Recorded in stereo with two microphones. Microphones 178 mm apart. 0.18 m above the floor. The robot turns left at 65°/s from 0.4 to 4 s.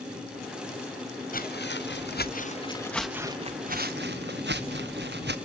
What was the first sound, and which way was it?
Footsteps, 50° left (ahead or behind).